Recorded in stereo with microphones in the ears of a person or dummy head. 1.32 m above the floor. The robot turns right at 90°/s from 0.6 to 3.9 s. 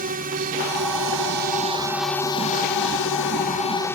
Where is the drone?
130° right; by 4.0 s 165° left.